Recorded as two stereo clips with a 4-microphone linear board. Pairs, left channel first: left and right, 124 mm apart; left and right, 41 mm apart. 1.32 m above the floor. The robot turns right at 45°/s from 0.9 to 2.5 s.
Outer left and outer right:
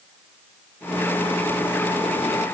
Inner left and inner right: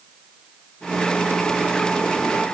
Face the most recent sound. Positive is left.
No sound to turn to.